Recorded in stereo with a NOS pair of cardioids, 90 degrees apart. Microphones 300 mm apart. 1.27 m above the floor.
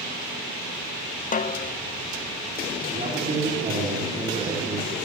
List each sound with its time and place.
1.3 s a snare drum: 30° left, 0.6 m
2.9 s a man speaking: 20° right, 3.5 m